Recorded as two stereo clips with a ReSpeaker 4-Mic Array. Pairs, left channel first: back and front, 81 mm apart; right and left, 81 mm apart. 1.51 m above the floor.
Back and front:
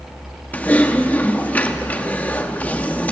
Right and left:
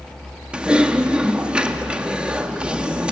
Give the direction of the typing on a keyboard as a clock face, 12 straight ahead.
7 o'clock.